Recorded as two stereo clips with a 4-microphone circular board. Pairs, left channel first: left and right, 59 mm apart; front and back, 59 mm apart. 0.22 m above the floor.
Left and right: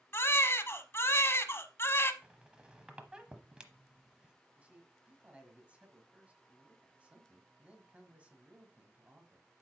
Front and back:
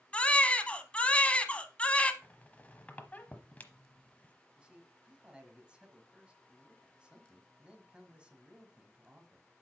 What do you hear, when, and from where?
0.1 s a baby crying: 65° left, 0.7 m
2.2 s a squeak: 30° right, 0.9 m
4.6 s a man speaking: 130° right, 1.5 m